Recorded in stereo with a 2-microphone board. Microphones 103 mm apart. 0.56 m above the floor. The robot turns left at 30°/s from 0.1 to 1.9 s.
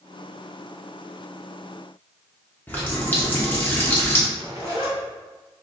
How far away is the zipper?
About 1.8 m.